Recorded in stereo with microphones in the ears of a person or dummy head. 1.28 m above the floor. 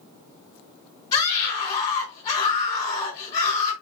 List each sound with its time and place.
1.1 s a scream: 20° left (ahead or behind), 3.5 m